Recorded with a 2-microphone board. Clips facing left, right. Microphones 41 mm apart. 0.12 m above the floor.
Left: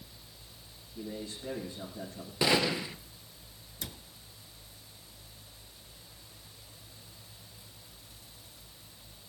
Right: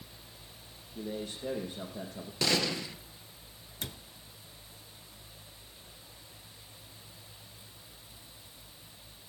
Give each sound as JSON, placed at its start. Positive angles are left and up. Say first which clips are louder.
{"t": 0.9, "sound": "a man speaking", "louder": "right 2 dB", "side_deg": -60, "distance_m": 5.5}
{"t": 2.4, "sound": "a gunshot", "louder": "left 3 dB", "side_deg": 20, "distance_m": 1.1}
{"t": 3.8, "sound": "a cupboard door", "louder": "right 2 dB", "side_deg": -40, "distance_m": 0.8}